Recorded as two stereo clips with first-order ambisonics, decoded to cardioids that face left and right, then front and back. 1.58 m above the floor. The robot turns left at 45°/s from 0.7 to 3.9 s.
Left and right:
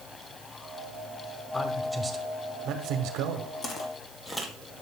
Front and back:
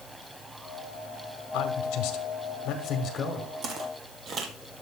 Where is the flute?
No flute in this recording.